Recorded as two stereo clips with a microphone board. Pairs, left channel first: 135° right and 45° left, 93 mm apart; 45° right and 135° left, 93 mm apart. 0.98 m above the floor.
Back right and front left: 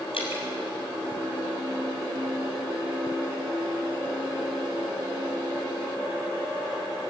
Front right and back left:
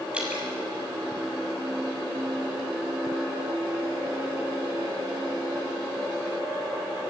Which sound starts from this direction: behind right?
Dripping, at 0.1 s.